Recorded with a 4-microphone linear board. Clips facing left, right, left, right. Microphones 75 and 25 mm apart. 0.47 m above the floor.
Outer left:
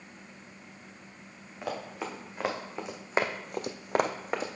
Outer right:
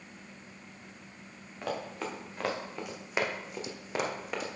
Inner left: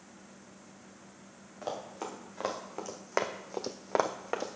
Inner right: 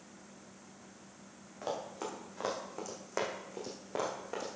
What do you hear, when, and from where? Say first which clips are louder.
1.6 s running footsteps: even, even; 5° left (ahead or behind), 3 m; by 4.5 s 40° left (ahead or behind), 1.5 m